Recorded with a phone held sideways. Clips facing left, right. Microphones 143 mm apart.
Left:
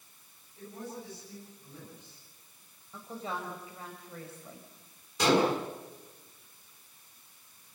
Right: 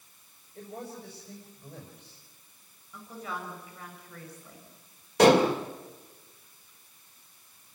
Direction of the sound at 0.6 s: 85° right.